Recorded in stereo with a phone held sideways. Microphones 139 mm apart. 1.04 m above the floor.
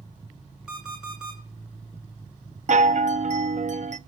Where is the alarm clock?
5° right (ahead or behind), 8.5 m.